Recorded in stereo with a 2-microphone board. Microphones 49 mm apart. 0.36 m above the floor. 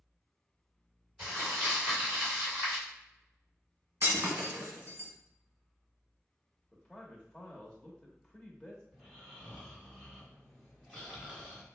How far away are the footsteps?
No footsteps in this recording.